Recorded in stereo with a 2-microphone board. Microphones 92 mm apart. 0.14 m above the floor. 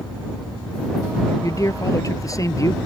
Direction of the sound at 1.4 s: 35° left (ahead or behind).